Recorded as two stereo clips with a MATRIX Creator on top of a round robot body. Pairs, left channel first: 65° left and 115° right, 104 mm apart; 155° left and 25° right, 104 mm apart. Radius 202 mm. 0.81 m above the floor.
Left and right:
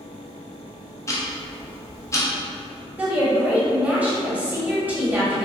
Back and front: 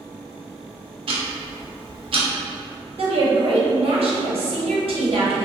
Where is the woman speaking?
35° right, 1.0 m.